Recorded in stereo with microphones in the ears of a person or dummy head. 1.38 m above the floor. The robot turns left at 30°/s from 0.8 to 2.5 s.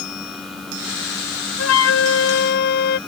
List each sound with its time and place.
1.6 s a flute: 85° left; by 3.0 s 65° left (ahead or behind)